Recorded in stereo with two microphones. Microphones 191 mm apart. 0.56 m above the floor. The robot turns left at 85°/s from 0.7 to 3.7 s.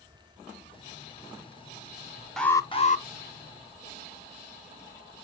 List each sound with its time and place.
2.4 s an alarm: straight behind, 0.6 m; by 3.0 s 120° left, 0.6 m